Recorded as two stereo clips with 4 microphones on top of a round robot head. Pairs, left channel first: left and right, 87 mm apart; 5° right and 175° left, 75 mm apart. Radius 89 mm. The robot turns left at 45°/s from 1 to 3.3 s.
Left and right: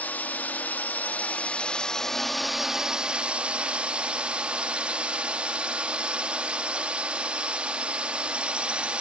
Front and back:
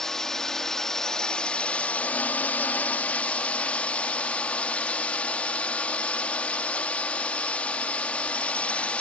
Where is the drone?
60° left; by 9.0 s 40° right.